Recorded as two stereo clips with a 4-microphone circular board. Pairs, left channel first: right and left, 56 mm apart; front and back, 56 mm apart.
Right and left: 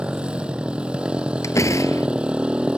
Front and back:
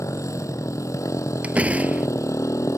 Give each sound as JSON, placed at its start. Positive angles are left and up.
{"t": 0.0, "sound": "a motorcycle", "azimuth_deg": 20}
{"t": 1.4, "sound": "a door slam", "azimuth_deg": -115}